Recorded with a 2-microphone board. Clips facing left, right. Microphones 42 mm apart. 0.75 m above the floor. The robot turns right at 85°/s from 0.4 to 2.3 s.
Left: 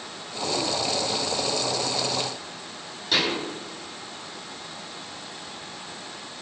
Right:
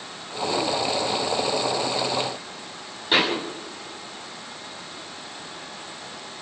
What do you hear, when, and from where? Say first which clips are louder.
3.1 s a thud: right 3 dB; 30° right (ahead or behind), 7 m